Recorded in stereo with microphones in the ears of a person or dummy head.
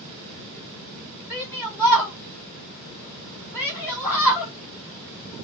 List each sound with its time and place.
1.3 s a shout: 5° right (ahead or behind), 3 m